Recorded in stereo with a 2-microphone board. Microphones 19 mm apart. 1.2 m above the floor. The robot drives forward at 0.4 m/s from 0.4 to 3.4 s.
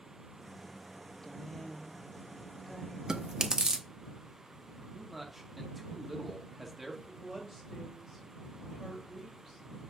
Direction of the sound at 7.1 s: Centre (ahead or behind).